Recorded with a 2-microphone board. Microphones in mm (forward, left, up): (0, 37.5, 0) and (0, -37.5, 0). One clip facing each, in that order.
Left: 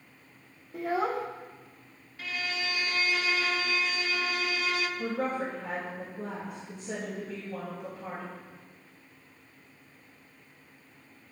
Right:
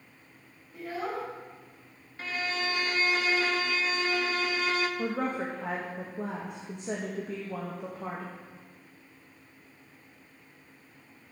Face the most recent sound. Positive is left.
turn(degrees=-70)  # may be behind; listen again after turning